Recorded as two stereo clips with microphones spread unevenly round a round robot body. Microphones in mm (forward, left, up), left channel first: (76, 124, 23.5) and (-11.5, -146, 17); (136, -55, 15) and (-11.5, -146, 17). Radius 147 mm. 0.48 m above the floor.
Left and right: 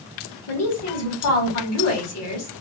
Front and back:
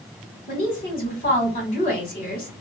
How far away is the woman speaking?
About 1.5 m.